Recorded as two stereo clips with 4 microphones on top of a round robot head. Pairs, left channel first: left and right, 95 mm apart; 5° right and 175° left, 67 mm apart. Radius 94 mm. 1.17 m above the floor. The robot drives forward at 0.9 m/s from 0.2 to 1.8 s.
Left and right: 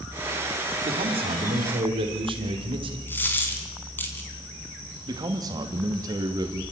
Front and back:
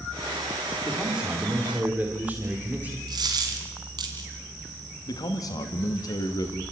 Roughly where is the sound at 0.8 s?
Right.